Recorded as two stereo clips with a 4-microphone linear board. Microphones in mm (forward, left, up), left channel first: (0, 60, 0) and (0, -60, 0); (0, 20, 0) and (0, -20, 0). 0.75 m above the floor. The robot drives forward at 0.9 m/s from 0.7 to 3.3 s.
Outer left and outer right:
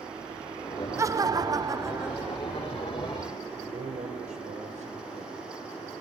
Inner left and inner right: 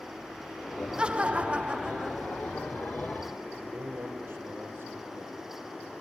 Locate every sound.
1.0 s laughter: 25° right (ahead or behind), 0.6 m; by 2.8 s 10° right (ahead or behind), 1.3 m
3.5 s a man speaking: 75° right (ahead or behind), 3 m